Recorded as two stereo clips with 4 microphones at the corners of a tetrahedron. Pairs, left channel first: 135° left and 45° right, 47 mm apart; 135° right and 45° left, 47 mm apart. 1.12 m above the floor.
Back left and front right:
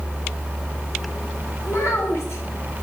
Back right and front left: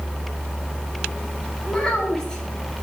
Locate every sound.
1.7 s a child speaking: 155° left, 2 m